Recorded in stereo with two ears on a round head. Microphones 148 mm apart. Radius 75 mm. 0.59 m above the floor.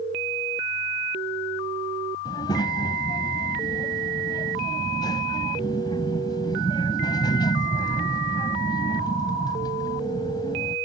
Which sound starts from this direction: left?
A child speaking, at 2.2 s.